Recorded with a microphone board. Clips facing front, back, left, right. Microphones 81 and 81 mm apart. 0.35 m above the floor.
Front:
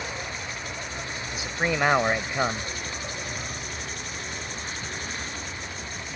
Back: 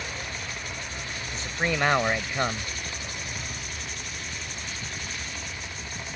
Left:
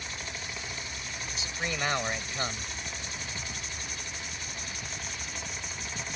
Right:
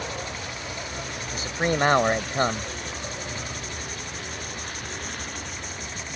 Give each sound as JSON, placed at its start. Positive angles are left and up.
{"t": 0.0, "sound": "a vehicle", "azimuth_deg": -75}
{"t": 1.3, "sound": "a man speaking", "azimuth_deg": -80}